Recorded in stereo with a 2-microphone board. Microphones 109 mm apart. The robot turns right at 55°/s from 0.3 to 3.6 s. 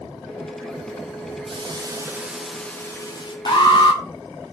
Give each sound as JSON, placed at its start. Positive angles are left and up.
{"t": 1.5, "sound": "a hiss", "azimuth_deg": -55, "distance_m": 0.6}
{"t": 3.5, "sound": "an alarm", "side_deg": 45, "distance_m": 1.0}